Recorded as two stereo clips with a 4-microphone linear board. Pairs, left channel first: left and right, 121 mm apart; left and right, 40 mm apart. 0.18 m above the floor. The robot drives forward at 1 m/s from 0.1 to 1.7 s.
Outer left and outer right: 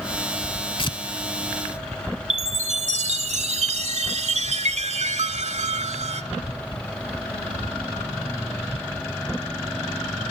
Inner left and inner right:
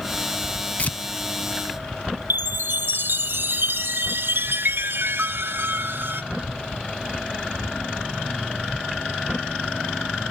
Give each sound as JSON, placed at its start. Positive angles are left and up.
{"t": 0.8, "sound": "tearing paper", "side_deg": 40, "distance_m": 0.6}
{"t": 2.3, "sound": "a chime", "side_deg": -65, "distance_m": 0.6}